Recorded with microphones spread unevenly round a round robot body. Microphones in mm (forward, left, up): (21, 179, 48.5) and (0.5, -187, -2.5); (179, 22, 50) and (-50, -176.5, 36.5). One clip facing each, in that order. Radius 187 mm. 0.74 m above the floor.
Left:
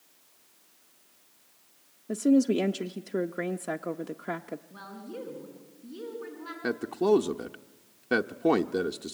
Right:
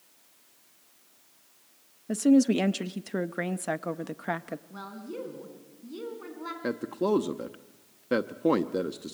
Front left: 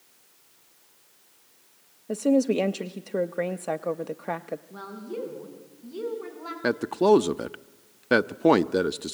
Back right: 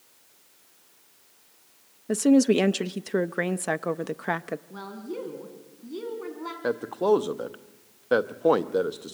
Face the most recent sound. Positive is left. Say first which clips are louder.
# left 3 dB, front left 3 dB
turn(degrees=0)